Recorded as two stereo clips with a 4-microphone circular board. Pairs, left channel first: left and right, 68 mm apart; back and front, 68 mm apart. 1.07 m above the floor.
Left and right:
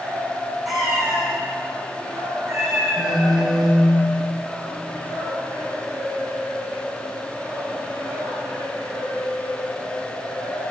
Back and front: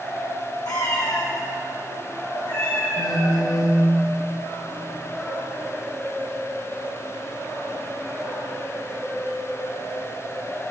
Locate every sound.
0.7 s a cat meowing: 175° right, 5.5 m
3.0 s a phone buzzing: 170° right, 1.8 m